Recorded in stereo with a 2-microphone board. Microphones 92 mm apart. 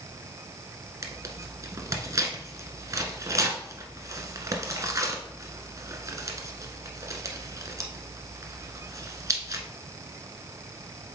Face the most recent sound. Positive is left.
turn(degrees=-40)  # may be behind; listen again after turning